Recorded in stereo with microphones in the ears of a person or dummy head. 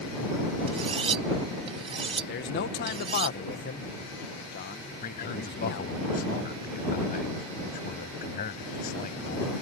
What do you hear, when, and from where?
0.7 s cutlery clinking: 30° right (ahead or behind)
2.3 s a man speaking: 55° left (ahead or behind)
5.0 s a man speaking: 50° left (ahead or behind)